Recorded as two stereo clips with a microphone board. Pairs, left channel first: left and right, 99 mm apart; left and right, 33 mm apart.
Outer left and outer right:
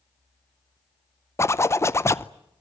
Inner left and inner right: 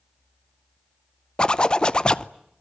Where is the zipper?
30° left (ahead or behind), 0.7 m.